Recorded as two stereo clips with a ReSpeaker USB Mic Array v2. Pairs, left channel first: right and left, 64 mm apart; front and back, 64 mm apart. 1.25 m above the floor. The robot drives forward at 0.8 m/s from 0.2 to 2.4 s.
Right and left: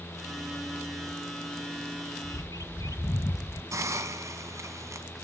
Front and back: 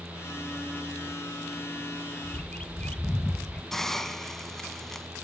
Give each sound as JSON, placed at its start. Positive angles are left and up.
{"t": 2.2, "sound": "a bird", "azimuth_deg": -60, "distance_m": 0.7}
{"t": 3.7, "sound": "a hiss", "azimuth_deg": 80, "distance_m": 1.7}